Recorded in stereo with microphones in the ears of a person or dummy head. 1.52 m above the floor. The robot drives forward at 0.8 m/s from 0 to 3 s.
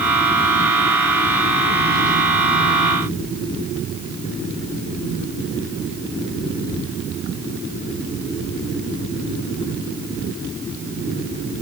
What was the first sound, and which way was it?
Only background noise.